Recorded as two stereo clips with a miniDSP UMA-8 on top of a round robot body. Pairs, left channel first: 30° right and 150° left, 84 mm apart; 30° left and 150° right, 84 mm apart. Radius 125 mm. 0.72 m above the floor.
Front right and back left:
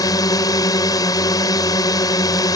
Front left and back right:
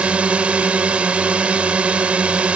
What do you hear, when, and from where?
0.0 s a drone: 75° right